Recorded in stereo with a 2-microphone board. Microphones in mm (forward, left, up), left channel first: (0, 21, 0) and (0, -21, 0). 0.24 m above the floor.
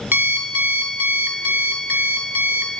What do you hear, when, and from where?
0.1 s an alarm clock: 60° right (ahead or behind), 0.7 m